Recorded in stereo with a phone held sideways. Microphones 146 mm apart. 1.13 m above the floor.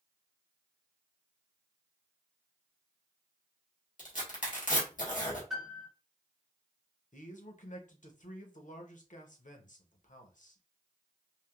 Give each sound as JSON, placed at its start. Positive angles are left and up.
{"t": 4.0, "sound": "tearing paper", "side_deg": 60, "distance_m": 1.5}
{"t": 5.5, "sound": "a piano", "side_deg": 0, "distance_m": 1.5}
{"t": 7.1, "sound": "a man speaking", "side_deg": 60, "distance_m": 0.7}